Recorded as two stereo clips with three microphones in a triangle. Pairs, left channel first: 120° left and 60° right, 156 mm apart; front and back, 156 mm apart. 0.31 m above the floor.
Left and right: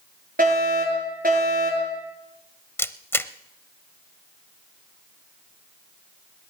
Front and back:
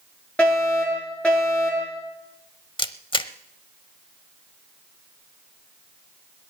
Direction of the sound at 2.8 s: 45° left.